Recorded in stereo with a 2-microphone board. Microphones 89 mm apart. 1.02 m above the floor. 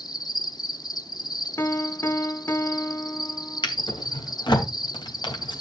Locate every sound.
0.0 s an insect: 50° left (ahead or behind), 0.7 m
1.6 s a piano: 30° left (ahead or behind), 0.7 m
3.6 s a drawer: 60° left (ahead or behind), 2.5 m